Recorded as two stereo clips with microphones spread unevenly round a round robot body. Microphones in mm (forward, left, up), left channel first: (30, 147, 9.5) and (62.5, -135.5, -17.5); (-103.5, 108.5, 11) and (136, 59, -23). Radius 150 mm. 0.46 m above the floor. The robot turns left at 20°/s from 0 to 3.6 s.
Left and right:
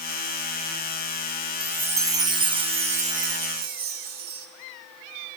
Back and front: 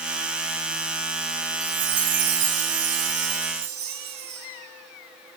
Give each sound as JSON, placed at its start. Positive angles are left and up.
{"t": 1.6, "sound": "a chime", "azimuth_deg": -5, "distance_m": 0.9}